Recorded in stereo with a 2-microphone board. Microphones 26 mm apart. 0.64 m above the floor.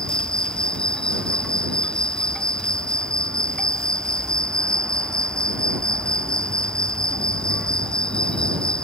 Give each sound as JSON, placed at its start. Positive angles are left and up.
{"t": 0.0, "sound": "an insect", "side_deg": 35}